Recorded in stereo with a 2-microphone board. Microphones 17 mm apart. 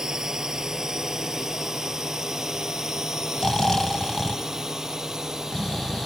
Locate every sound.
0.0 s a drone: 30° right (ahead or behind)
3.4 s snoring: 40° left (ahead or behind)